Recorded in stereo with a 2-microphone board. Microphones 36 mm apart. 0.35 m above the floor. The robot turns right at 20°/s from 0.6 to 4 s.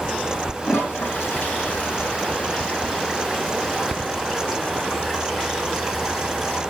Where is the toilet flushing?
70° left (ahead or behind), 2.5 m; by 6.6 s 5° left (ahead or behind), 2.5 m.